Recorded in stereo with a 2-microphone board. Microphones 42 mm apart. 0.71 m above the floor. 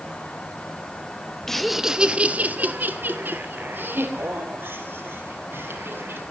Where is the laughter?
10° left (ahead or behind), 1.0 m; by 6.2 s 60° right (ahead or behind), 5.5 m.